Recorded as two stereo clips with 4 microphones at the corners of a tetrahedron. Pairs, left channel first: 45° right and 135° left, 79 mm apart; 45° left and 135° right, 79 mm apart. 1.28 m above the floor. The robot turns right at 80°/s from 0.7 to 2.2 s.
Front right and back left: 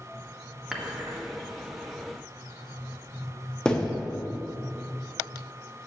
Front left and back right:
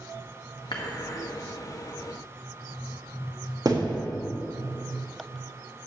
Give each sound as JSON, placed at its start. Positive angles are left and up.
{"t": 0.7, "sound": "dishes clattering", "azimuth_deg": 55, "distance_m": 1.0}
{"t": 3.6, "sound": "a thud", "azimuth_deg": -120, "distance_m": 0.9}